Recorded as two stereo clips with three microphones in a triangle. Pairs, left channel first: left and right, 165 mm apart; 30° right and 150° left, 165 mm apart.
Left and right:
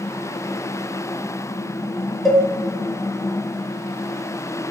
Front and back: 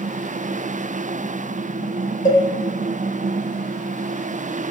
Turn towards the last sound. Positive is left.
turn(degrees=0)